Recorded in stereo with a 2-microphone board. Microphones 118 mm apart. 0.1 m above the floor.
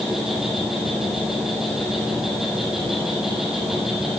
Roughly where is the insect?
Centre.